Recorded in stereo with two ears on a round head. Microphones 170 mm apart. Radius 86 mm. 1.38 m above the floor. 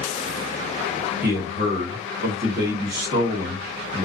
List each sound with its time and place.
1.2 s a man speaking: 55° right (ahead or behind), 1.3 m